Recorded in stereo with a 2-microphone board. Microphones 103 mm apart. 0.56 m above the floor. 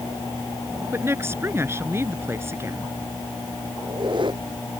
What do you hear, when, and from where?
0.9 s a woman speaking: 25° right (ahead or behind)
3.8 s a squeak: 50° right (ahead or behind)